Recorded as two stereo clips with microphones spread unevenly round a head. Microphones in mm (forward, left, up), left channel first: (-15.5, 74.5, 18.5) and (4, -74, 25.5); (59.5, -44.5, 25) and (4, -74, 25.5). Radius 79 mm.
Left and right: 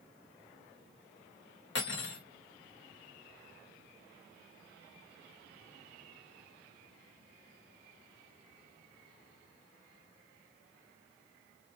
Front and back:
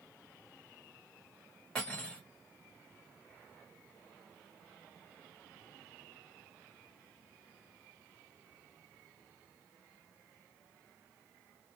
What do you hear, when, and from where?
1.8 s cutlery clinking: 115° left, 2 m